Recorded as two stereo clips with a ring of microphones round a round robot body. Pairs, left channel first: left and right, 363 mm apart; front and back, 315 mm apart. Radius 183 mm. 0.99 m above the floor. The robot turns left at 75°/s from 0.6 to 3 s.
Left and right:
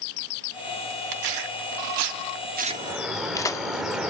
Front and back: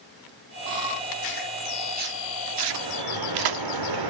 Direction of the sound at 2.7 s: 155° right.